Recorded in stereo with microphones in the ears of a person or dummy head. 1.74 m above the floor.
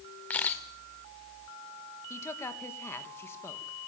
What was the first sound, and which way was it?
A camera shutter, 10° left (ahead or behind).